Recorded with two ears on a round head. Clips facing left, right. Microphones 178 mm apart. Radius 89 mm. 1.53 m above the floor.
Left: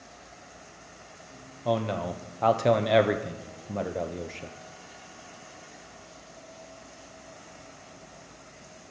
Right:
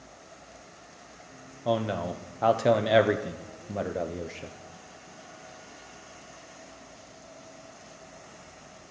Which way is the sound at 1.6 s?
5° right (ahead or behind).